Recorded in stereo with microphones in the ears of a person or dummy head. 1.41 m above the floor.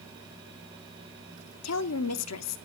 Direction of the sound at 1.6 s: 75° left (ahead or behind).